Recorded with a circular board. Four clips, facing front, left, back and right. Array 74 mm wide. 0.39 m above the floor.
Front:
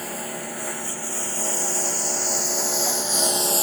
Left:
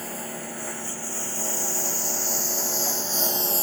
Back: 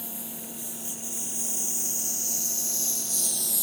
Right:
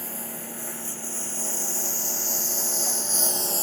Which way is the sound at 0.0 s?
20° left.